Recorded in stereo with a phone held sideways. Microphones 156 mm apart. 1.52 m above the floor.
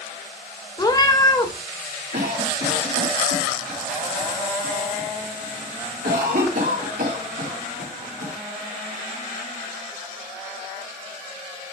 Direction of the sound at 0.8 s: 25° left (ahead or behind).